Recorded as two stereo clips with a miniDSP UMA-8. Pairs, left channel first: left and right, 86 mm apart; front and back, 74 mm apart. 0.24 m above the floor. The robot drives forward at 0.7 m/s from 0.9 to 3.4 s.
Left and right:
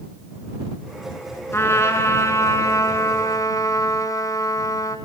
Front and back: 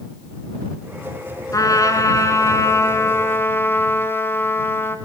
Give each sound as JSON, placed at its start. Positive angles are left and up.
{"t": 1.5, "sound": "a trumpet", "azimuth_deg": 30, "distance_m": 3.0}